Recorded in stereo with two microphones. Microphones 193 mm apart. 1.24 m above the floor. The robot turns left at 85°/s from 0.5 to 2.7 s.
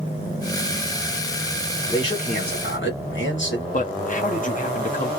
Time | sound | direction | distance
1.9 | a man speaking | 170° left | 1.8 m
3.7 | a man speaking | 40° left (ahead or behind) | 0.9 m